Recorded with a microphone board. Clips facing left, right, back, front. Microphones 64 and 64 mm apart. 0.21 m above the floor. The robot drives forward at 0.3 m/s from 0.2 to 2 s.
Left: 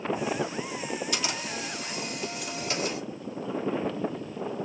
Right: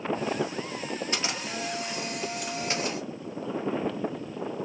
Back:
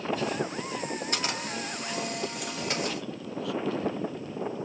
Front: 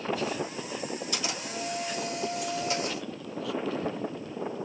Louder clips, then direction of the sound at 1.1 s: Even, back 2 dB; 145° right.